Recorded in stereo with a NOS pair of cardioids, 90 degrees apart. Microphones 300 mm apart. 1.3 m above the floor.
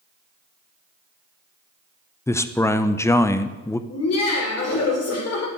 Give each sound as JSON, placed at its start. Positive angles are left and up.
{"t": 2.3, "sound": "a man speaking", "azimuth_deg": 10, "distance_m": 0.5}
{"t": 3.9, "sound": "laughter", "azimuth_deg": 50, "distance_m": 2.5}